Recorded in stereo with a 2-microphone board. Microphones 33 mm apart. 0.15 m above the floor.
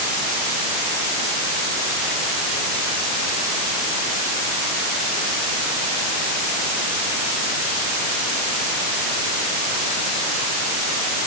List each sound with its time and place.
Only background noise.